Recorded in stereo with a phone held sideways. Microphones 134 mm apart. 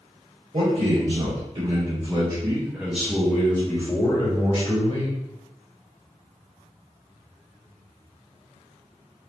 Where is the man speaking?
55° right (ahead or behind), 1.8 m; by 5.1 s 50° left (ahead or behind), 1.6 m.